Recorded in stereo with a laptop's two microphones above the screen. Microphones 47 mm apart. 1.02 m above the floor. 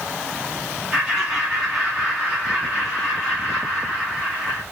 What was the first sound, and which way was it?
Laughter, 5° right (ahead or behind).